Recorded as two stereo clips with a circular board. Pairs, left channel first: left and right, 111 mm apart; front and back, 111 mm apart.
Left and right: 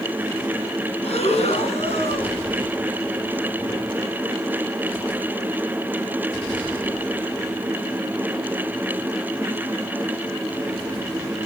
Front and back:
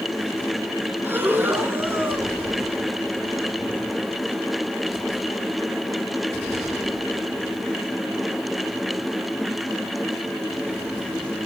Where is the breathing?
110° left, 2.0 m.